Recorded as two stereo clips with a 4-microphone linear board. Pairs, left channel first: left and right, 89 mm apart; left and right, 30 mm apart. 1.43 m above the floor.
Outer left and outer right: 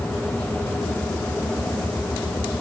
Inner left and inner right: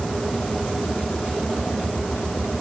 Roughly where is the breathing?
I don't hear breathing.